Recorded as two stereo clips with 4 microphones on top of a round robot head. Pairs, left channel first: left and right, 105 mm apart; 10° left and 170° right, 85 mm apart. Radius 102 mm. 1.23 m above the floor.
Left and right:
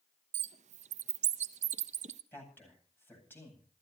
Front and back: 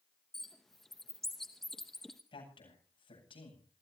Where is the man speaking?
20° left, 9.5 m.